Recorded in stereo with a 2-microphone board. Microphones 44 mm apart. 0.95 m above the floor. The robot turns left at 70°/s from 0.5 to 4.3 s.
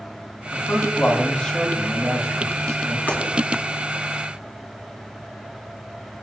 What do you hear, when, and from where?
0.5 s a man speaking: 85° left, 6 m; by 3.0 s 90° right, 6 m
3.1 s breaking glass: 50° left (ahead or behind), 3.5 m; by 3.2 s 55° left (ahead or behind), 3.5 m